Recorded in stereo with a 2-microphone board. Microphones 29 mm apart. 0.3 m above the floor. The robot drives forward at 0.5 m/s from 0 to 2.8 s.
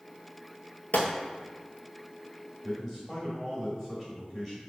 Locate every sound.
0.9 s a gunshot: 85° left, 0.9 m; by 1.1 s 80° left, 0.9 m
2.6 s a man speaking: 5° left (ahead or behind), 1.0 m